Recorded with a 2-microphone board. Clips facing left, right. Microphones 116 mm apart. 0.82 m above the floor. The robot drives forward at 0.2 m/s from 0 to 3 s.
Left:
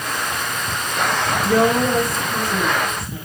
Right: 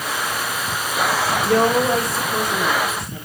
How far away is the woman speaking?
About 2.5 m.